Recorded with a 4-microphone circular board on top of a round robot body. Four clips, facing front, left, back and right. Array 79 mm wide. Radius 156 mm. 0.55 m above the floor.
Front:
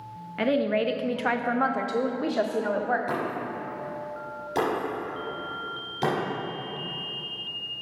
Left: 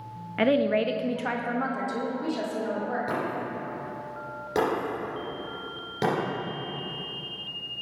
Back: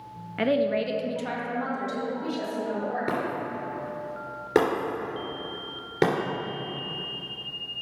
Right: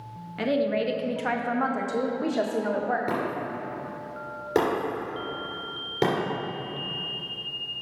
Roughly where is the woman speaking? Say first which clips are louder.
Left 2 dB, even; left.